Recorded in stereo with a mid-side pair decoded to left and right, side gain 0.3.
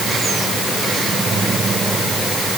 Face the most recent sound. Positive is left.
No sound to turn to.